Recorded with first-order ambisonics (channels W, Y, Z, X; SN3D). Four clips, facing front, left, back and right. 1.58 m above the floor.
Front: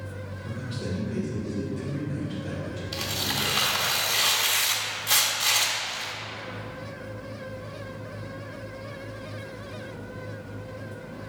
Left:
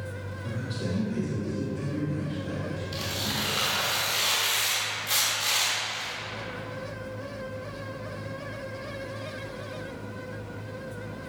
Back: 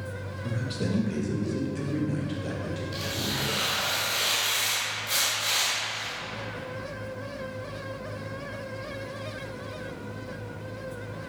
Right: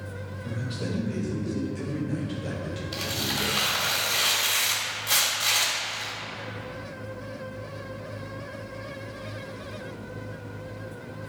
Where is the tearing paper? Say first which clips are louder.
Right 3 dB, front 4 dB; 30° right, 1.5 m.